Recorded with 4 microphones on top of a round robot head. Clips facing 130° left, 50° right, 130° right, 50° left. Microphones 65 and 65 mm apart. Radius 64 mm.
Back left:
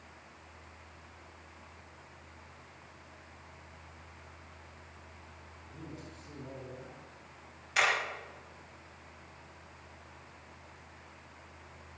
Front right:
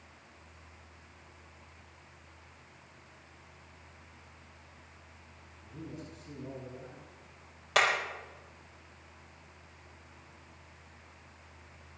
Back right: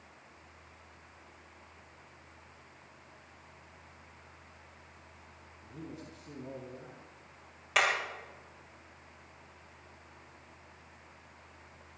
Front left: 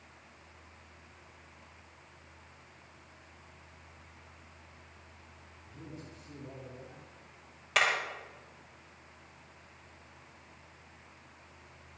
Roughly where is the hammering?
Ahead right.